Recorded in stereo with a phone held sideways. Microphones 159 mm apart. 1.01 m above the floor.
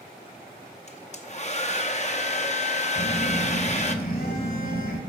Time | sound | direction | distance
0.9 | a hair dryer | 45° left (ahead or behind) | 0.8 m
3.0 | a phone buzzing | 75° left (ahead or behind) | 3 m